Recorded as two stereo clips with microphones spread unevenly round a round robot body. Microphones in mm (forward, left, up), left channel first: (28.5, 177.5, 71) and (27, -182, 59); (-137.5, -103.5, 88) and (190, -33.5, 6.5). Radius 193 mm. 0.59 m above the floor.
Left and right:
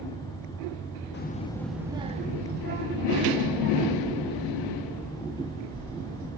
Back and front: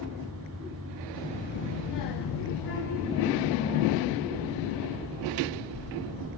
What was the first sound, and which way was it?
A child speaking, 85° left.